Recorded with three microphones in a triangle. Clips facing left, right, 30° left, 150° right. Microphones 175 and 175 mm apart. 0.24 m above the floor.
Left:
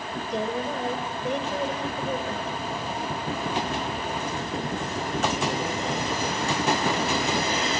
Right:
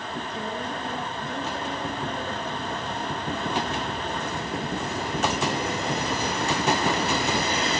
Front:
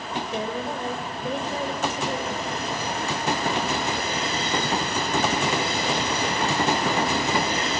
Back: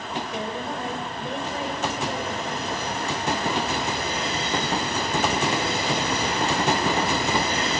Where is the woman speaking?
85° left, 4.5 m.